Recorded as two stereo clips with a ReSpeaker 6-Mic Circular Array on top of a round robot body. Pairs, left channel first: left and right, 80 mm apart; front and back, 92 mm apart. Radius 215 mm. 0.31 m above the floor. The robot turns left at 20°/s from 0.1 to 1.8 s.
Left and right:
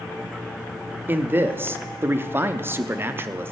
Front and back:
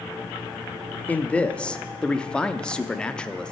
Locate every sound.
1.1 s a man speaking: 55° right, 1.1 m; by 3.5 s 70° right, 1.1 m